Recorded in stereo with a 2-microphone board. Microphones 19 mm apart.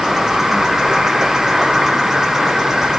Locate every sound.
0.0 s an insect: 20° right (ahead or behind), 1.1 m